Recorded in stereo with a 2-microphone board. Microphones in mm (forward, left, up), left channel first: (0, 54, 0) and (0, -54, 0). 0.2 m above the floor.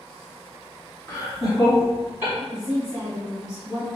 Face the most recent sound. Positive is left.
turn(degrees=-35)  # may be behind; listen again after turning